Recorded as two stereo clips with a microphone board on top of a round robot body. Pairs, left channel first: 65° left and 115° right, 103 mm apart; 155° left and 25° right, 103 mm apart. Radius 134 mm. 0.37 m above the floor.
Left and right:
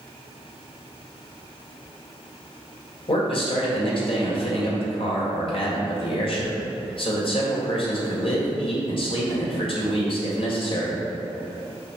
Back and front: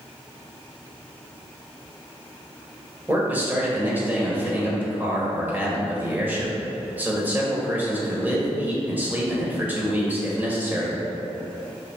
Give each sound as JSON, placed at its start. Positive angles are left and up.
{"t": 3.1, "sound": "a man speaking", "azimuth_deg": 50, "distance_m": 2.0}